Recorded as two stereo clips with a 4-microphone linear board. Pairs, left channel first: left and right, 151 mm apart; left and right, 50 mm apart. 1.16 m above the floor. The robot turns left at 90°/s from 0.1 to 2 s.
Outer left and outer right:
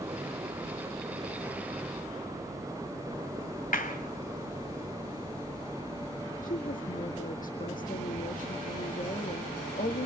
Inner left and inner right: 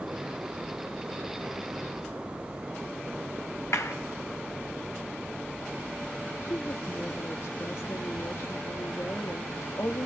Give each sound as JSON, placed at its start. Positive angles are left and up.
{"t": 3.7, "sound": "a clap", "side_deg": 65, "distance_m": 2.5}
{"t": 6.4, "sound": "a woman speaking", "side_deg": 65, "distance_m": 1.9}